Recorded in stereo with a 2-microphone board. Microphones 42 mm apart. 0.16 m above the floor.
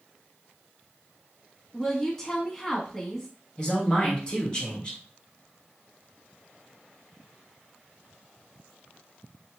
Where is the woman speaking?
10° left (ahead or behind), 1.0 m.